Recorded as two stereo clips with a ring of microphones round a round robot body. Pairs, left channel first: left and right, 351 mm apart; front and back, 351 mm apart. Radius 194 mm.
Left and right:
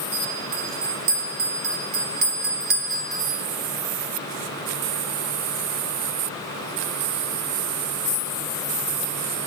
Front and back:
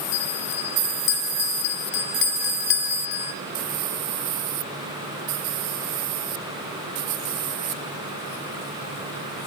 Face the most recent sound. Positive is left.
turn(degrees=-25)